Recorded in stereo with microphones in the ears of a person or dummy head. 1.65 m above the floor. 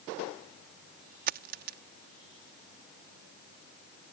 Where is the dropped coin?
45° right (ahead or behind).